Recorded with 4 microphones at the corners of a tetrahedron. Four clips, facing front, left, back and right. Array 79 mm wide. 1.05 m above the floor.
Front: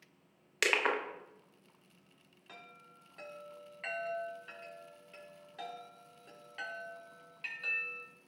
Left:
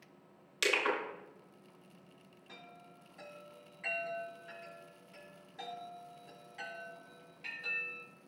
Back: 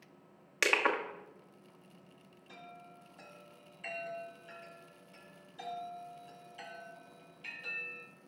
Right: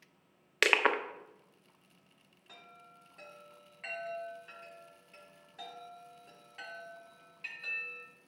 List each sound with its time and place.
0.6 s crushing: 110° right, 0.8 m
2.5 s a chime: 5° left, 3 m